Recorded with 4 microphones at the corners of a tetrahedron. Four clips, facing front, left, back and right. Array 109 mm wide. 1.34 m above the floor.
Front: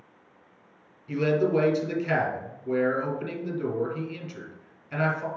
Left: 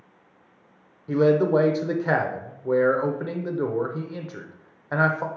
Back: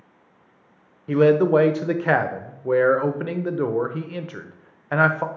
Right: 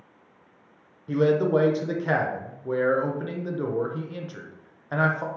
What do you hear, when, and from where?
1.1 s a man speaking: 170° left, 0.6 m